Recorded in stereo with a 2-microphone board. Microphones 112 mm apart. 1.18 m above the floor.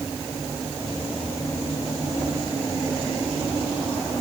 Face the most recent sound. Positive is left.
No sound to turn to.